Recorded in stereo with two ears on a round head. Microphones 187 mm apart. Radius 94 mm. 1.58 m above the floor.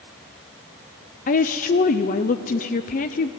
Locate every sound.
1.3 s a woman speaking: 40° left (ahead or behind), 0.7 m